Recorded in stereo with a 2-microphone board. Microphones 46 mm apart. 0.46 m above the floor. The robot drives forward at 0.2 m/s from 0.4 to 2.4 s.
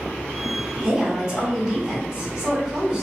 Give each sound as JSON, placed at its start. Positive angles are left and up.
{"t": 0.8, "sound": "a woman speaking", "side_deg": -15, "distance_m": 1.1}